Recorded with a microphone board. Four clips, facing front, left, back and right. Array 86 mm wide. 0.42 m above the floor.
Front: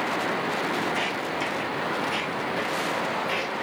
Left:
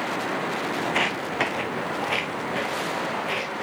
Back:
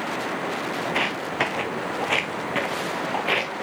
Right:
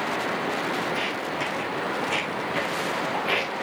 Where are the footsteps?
130° left, 1.1 m; by 3.5 s 165° right, 1.8 m.